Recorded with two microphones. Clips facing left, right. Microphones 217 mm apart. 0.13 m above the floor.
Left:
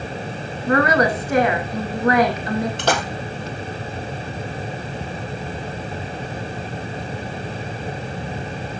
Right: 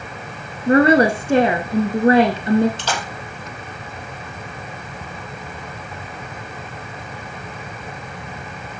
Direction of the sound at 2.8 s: 60° left (ahead or behind).